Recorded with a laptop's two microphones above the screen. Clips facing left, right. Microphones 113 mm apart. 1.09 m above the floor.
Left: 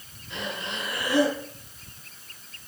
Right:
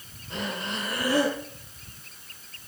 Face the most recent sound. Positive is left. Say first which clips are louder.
# right 2 dB
turn(degrees=-40)  # may be behind; listen again after turning